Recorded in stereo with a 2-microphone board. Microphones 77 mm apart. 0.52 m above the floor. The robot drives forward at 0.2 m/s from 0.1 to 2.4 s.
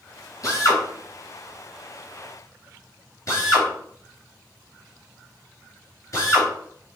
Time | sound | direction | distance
0.4 | a drill | 45° left (ahead or behind) | 3 m